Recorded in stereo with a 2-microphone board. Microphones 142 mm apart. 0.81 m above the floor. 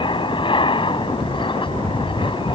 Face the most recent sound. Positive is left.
turn(degrees=35)  # may be behind; listen again after turning